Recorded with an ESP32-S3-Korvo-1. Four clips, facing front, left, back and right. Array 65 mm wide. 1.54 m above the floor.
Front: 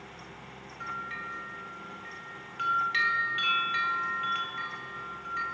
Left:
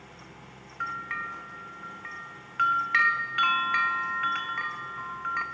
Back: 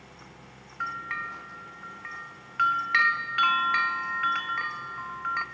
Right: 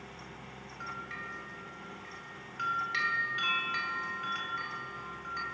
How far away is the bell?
About 1.5 m.